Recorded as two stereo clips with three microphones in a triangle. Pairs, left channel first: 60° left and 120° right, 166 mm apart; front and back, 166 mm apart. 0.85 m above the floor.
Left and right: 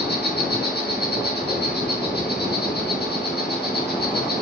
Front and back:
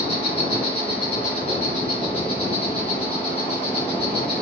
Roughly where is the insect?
Ahead left.